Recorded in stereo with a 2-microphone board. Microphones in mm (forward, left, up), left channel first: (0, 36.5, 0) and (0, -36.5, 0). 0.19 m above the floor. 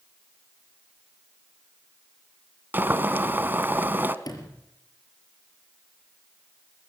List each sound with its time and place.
2.7 s boiling: 30° right (ahead or behind), 1.0 m
4.2 s a sliding door: 65° left (ahead or behind), 4 m